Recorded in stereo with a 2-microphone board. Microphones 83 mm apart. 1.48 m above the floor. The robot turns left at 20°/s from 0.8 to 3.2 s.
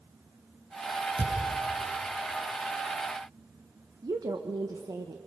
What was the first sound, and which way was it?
A thud, 80° right.